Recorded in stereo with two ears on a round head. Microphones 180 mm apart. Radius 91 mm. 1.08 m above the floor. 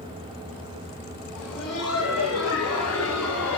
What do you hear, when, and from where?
1.4 s laughter: 80° left, 8 m; by 3.6 s 70° left (ahead or behind), 8.5 m